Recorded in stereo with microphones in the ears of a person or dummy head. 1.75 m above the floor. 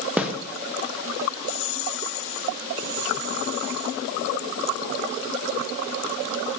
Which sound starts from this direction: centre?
A snare drum, at 0.2 s.